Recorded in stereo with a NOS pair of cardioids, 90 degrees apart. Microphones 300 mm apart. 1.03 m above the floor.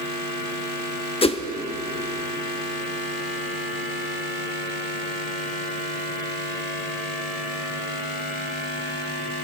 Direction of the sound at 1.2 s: 20° left.